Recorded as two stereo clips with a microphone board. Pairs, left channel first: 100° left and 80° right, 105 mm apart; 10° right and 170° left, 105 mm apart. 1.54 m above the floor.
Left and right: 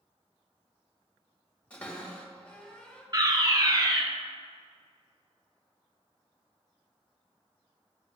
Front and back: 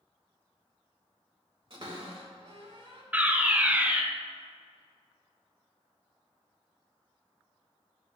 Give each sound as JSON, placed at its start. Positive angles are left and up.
{"t": 1.7, "sound": "a cupboard door", "azimuth_deg": 175, "distance_m": 2.0}
{"t": 3.1, "sound": "a fire alarm", "azimuth_deg": -115, "distance_m": 0.8}